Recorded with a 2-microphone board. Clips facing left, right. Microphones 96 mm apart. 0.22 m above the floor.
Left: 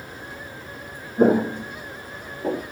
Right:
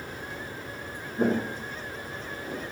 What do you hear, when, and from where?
1.2 s footsteps: 35° left (ahead or behind), 0.5 m; by 2.6 s 75° left (ahead or behind), 1.1 m